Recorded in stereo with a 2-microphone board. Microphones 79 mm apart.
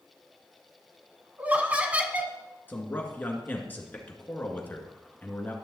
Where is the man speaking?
25° left (ahead or behind), 1.9 m.